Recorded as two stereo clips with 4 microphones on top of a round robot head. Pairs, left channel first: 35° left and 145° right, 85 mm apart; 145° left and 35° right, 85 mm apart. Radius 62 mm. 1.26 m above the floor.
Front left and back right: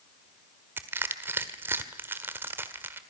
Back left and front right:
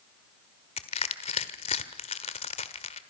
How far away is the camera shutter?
I don't hear a camera shutter.